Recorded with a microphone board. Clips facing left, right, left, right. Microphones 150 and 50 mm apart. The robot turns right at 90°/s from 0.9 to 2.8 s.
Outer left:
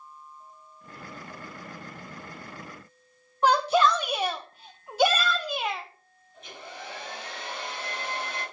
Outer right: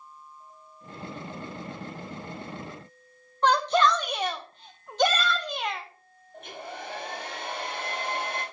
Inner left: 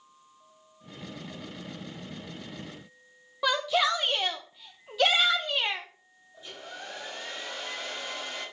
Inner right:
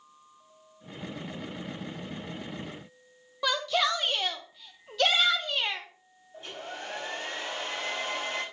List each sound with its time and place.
3.4 s a shout: 10° left (ahead or behind), 0.7 m
6.3 s a hair dryer: 65° right (ahead or behind), 7 m